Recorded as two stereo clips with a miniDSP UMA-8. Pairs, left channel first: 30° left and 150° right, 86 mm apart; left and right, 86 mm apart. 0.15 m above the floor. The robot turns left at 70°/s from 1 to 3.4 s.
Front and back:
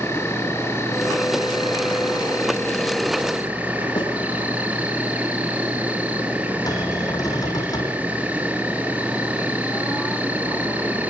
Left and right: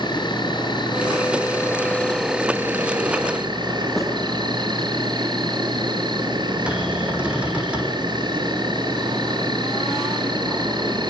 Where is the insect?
85° left, 4 m; by 11.1 s 80° right, 4 m.